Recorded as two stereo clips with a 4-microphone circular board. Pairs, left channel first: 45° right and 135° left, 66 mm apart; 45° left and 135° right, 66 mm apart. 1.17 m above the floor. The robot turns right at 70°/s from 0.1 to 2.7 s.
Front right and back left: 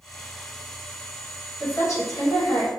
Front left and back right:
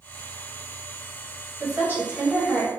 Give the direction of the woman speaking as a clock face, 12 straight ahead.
3 o'clock.